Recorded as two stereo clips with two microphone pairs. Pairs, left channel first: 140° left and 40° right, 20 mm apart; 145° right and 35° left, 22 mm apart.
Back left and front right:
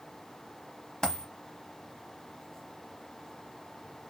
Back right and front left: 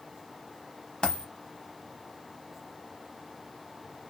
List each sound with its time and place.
1.0 s a dropped coin: 175° left, 0.9 m